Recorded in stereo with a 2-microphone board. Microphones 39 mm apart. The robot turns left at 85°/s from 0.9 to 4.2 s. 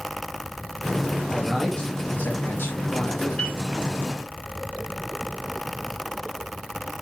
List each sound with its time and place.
1.3 s a man speaking: 160° right, 2 m; by 3.4 s 15° left, 2 m
3.4 s a piano: 25° left (ahead or behind), 5 m; by 3.6 s 40° left (ahead or behind), 5 m